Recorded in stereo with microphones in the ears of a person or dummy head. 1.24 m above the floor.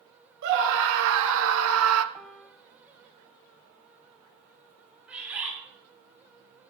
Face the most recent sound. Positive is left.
turn(degrees=-5)  # may be behind; listen again after turning